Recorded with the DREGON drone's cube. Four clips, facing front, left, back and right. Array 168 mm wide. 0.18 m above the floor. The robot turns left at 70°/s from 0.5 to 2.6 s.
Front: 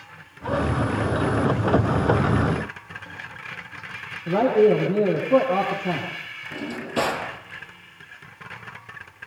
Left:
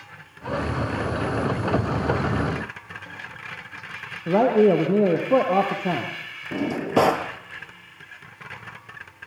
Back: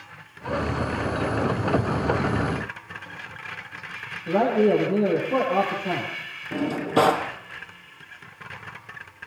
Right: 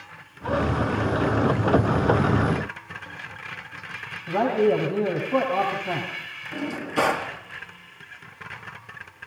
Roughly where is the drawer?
Behind left.